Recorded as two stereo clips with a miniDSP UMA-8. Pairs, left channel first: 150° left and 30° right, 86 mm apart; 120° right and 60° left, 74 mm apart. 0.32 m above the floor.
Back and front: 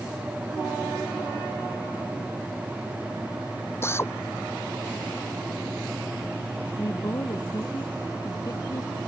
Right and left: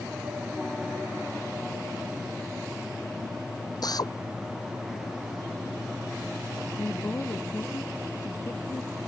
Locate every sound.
3.8 s a drill: 150° right
6.8 s a woman speaking: 170° right